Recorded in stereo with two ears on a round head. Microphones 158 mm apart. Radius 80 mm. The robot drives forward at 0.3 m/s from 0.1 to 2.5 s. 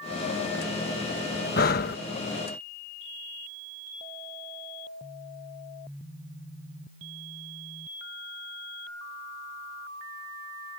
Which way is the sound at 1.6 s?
55° left (ahead or behind).